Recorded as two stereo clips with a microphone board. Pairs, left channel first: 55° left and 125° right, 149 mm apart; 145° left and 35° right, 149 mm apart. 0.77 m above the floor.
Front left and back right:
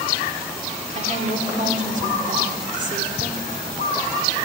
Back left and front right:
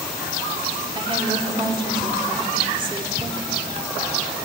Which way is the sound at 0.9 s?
90° right.